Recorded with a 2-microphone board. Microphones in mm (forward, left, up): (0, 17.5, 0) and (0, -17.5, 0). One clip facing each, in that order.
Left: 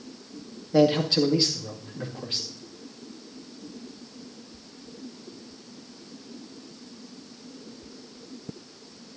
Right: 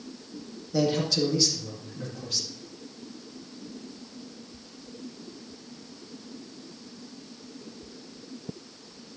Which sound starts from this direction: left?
A man speaking, at 0.7 s.